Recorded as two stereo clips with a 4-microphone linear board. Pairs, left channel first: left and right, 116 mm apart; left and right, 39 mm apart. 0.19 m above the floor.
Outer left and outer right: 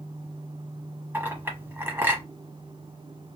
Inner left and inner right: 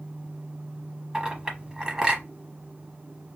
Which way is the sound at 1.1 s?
20° right (ahead or behind).